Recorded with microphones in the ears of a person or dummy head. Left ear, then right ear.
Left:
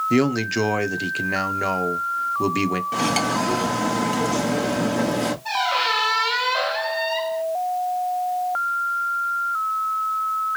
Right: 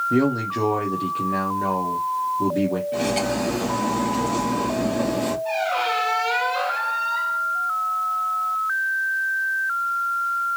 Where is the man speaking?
65° left (ahead or behind), 1.0 m.